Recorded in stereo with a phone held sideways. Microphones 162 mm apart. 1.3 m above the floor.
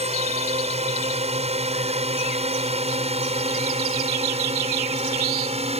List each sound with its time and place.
0.0 s a drone: 40° right (ahead or behind)